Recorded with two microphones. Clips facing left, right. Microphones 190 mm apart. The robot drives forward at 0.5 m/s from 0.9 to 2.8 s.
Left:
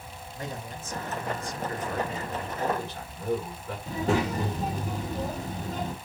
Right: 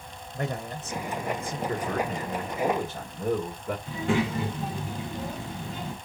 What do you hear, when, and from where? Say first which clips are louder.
0.3 s a man speaking: right 6 dB; 70° right (ahead or behind), 0.6 m; by 1.6 s 55° right (ahead or behind), 0.7 m
1.7 s a man speaking: right 3 dB; 40° right (ahead or behind), 2.0 m; by 3.8 s 50° right (ahead or behind), 1.6 m
3.9 s a child speaking: left 1 dB; 40° left (ahead or behind), 1.1 m